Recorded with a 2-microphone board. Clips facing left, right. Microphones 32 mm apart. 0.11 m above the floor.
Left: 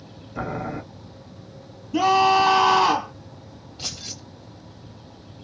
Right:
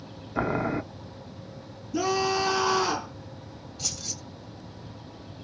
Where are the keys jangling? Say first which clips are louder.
Left 3 dB; 40° left (ahead or behind), 1.7 m.